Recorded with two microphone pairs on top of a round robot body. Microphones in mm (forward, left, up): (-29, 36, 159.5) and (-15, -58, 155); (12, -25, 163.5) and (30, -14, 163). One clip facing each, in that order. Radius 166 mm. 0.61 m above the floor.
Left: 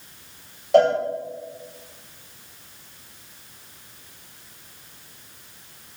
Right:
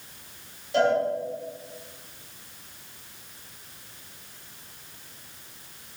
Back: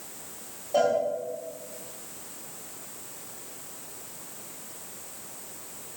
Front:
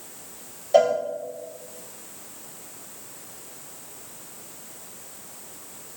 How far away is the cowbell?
About 2 m.